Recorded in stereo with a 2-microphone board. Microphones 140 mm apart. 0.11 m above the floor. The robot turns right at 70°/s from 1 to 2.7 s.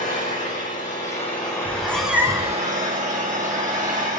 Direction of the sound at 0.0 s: 120° left.